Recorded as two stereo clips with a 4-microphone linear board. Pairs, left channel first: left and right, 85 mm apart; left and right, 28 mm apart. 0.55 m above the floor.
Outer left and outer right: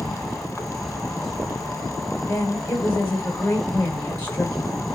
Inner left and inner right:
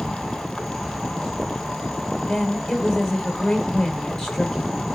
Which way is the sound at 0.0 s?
Centre (ahead or behind).